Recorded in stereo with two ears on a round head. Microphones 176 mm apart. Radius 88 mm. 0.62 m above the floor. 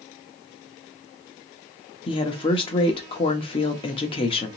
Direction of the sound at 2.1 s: 25° left (ahead or behind).